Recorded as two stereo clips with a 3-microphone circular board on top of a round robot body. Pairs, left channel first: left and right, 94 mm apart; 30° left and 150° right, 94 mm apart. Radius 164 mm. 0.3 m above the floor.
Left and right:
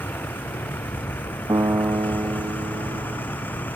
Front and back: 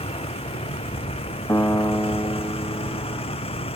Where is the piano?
30° right.